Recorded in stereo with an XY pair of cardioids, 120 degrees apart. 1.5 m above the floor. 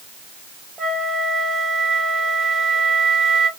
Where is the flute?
35° right, 1.0 m.